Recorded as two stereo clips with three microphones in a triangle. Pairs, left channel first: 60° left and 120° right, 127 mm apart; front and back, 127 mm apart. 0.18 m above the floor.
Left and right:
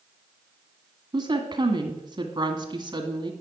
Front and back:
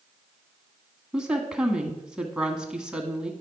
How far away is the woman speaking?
About 1.3 m.